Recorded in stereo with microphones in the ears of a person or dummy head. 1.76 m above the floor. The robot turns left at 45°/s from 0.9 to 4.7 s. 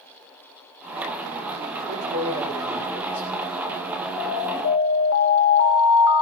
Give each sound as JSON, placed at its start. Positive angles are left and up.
{"t": 1.9, "sound": "a man speaking", "azimuth_deg": -130, "distance_m": 8.5}
{"t": 4.2, "sound": "an alarm", "side_deg": 55, "distance_m": 5.0}